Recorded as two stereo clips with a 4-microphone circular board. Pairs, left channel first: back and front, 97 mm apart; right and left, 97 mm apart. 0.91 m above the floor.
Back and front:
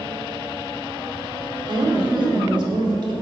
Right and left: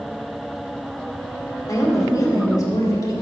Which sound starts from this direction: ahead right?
A woman speaking, at 1.7 s.